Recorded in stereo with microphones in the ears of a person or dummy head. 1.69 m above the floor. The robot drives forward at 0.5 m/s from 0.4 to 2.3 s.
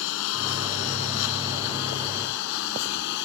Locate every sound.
0.0 s a lawn mower: 70° left (ahead or behind); by 3.2 s 65° left (ahead or behind)